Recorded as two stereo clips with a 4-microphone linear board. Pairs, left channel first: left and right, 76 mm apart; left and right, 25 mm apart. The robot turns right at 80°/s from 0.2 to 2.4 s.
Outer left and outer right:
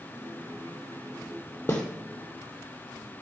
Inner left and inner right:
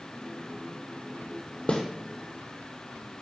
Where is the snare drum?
30° left (ahead or behind), 2.5 m; by 1.8 s 20° left (ahead or behind), 2.5 m.